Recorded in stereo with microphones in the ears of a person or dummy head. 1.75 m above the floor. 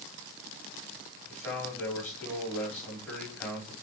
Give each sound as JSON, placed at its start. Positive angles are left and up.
{"t": 1.3, "sound": "a man speaking", "side_deg": 15, "distance_m": 6.0}